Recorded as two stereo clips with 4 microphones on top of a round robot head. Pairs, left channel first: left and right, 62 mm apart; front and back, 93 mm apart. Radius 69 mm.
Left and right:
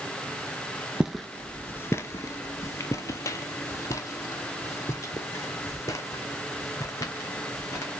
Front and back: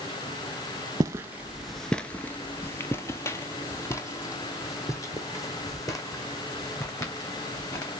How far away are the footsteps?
About 0.5 m.